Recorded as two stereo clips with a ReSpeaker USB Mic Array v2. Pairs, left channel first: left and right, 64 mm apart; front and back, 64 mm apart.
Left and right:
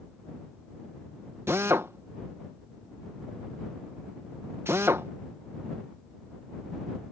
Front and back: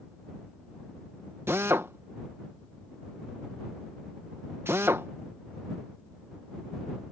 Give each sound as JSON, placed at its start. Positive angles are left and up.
{"t": 1.5, "sound": "a drill", "azimuth_deg": -130}